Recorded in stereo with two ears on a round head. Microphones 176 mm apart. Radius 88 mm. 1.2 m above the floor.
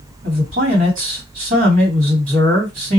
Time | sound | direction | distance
0.2 | a man speaking | 45° right (ahead or behind) | 2.5 m